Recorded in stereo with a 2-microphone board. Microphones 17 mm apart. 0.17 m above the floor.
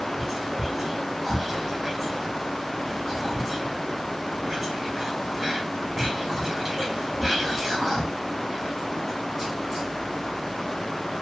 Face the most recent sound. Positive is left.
turn(degrees=-5)  # may be behind; listen again after turning